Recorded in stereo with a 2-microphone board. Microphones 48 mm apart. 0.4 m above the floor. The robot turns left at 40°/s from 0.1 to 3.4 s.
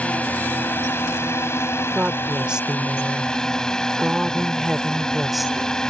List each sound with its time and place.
0.0 s a drone: 150° left; by 5.9 s 20° left
1.9 s a woman speaking: 115° right; by 5.7 s 170° right